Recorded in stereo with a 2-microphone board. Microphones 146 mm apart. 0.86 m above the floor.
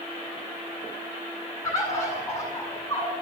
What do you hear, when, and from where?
1.6 s a bird: 25° left (ahead or behind), 9 m